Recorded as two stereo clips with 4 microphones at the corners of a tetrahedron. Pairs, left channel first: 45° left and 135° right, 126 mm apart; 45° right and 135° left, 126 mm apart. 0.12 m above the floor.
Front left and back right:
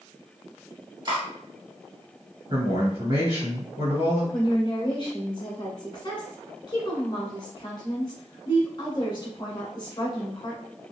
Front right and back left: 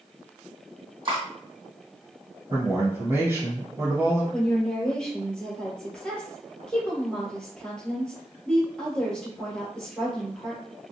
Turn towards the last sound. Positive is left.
turn(degrees=35)